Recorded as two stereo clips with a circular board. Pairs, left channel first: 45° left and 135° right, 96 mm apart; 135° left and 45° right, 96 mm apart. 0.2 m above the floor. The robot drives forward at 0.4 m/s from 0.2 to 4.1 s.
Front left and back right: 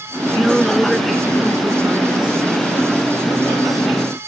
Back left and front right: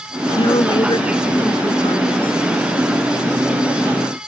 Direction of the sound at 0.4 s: 135° left.